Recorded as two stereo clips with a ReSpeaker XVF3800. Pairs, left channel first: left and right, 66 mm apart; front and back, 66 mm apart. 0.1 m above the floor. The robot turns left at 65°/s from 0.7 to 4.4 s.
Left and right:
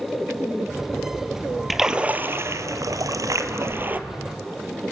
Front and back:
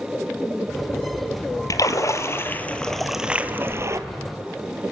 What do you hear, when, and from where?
1.7 s a splash: straight ahead, 1.1 m; by 4.0 s 150° right, 1.1 m